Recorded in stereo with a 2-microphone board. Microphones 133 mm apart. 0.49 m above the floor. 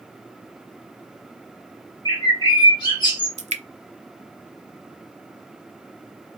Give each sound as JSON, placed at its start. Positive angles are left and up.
{"t": 2.0, "sound": "a bird", "side_deg": 35, "distance_m": 1.7}
{"t": 3.4, "sound": "dripping", "side_deg": -60, "distance_m": 0.5}